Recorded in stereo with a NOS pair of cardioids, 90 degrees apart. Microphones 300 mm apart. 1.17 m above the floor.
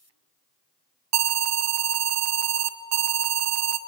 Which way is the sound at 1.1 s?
65° right.